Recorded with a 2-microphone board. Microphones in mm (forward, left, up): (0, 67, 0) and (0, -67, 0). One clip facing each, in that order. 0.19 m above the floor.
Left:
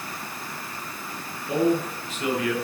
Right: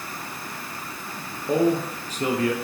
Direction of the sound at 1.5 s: 40° right (ahead or behind).